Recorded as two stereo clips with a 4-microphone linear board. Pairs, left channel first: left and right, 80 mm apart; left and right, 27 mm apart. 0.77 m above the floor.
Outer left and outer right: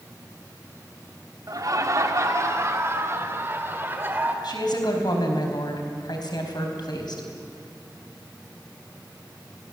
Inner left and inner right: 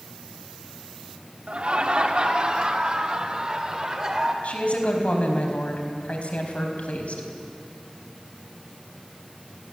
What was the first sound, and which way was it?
Laughter, 50° right (ahead or behind).